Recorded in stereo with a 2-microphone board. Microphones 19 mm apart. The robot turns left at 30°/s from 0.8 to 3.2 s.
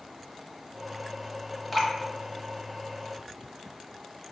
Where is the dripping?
5° left (ahead or behind), 0.7 m; by 1.9 s 10° left (ahead or behind), 0.7 m.